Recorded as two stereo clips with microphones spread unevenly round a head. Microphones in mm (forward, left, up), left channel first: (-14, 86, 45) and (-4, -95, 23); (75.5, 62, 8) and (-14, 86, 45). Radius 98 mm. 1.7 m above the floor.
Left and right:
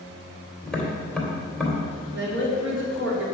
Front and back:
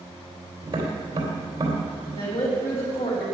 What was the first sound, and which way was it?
Tapping, 175° left.